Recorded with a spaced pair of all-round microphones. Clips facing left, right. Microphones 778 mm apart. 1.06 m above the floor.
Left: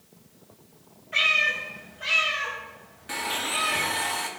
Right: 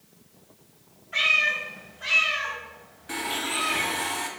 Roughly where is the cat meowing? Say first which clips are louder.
Left 1 dB; left.